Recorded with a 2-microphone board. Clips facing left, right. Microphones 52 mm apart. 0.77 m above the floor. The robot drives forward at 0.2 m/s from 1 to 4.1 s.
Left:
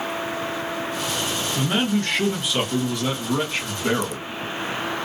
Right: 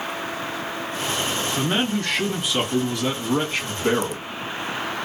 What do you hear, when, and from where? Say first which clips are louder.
1.6 s a man speaking: left 2 dB; centre (ahead or behind), 1.3 m